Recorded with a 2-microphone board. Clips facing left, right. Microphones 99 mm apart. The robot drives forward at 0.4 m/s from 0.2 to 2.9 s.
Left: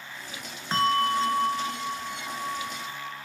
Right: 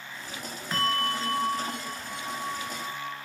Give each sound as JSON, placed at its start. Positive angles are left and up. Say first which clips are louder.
{"t": 0.7, "sound": "a bell", "louder": "left 5 dB", "side_deg": 30, "distance_m": 1.0}